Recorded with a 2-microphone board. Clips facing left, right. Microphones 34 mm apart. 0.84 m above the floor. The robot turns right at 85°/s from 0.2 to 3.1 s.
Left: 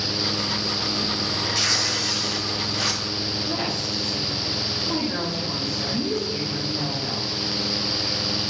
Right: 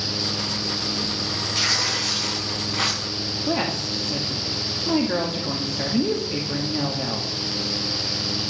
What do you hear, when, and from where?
1.6 s tearing paper: 175° right, 4 m; by 3.4 s 40° right, 4 m
3.5 s a woman speaking: 50° right (ahead or behind), 1.6 m